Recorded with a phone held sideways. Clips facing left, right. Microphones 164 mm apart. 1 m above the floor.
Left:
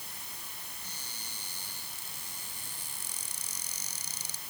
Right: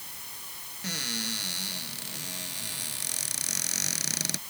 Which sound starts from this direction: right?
A cupboard door, at 0.8 s.